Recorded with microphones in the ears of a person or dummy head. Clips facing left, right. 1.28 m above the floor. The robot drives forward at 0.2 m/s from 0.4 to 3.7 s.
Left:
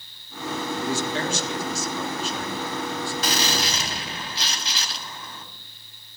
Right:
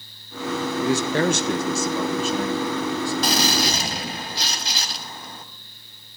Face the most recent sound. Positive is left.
turn(degrees=-40)  # may be behind; listen again after turning